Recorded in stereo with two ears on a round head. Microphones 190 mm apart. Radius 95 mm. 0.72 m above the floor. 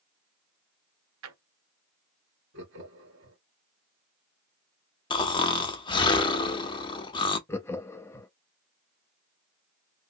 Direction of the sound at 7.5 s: 10° left (ahead or behind).